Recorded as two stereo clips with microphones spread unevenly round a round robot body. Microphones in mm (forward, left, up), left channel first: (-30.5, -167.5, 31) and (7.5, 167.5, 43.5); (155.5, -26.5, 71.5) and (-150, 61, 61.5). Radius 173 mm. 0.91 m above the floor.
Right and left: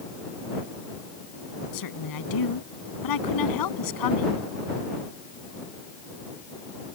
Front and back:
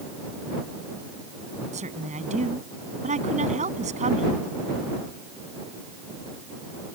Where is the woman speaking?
125° right.